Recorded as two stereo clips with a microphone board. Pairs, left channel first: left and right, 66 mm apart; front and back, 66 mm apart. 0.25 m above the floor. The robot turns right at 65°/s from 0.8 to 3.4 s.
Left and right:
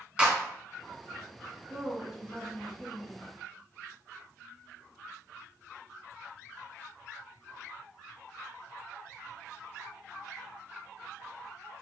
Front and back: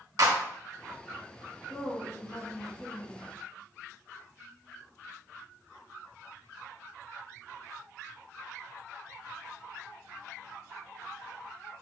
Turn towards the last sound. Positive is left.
turn(degrees=80)